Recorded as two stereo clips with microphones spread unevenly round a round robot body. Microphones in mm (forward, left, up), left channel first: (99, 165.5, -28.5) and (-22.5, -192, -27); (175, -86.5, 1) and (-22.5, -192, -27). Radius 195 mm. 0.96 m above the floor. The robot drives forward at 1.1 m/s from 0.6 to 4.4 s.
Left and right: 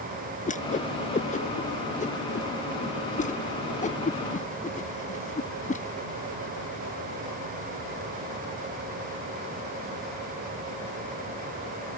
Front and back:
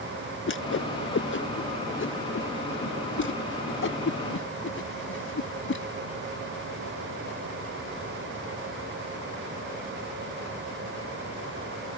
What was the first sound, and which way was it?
A whoosh, straight ahead.